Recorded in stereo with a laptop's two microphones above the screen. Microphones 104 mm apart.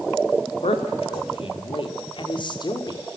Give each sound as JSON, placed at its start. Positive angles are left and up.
{"t": 0.6, "sound": "a man speaking", "side_deg": 70, "distance_m": 3.0}